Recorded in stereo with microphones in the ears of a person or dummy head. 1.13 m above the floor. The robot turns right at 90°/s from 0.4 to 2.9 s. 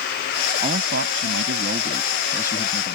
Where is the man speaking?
150° right; by 3.0 s 55° left.